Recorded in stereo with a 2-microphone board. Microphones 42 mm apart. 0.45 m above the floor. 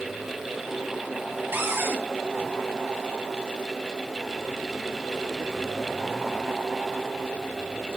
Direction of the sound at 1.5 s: 55° right (ahead or behind).